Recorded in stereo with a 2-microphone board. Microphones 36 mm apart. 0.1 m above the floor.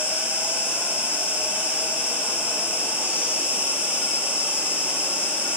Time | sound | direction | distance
0.0 | an insect | 70° right (ahead or behind) | 5 m